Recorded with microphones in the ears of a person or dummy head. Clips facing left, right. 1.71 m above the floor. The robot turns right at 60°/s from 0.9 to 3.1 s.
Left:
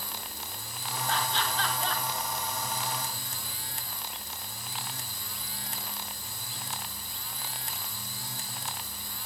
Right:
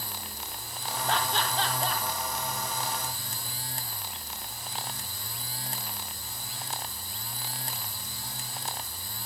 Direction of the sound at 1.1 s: 60° right (ahead or behind).